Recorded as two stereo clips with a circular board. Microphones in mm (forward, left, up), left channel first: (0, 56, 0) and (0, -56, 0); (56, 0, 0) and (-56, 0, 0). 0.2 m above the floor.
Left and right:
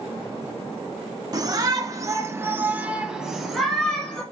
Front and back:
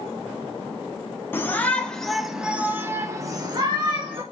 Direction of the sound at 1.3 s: 60° right.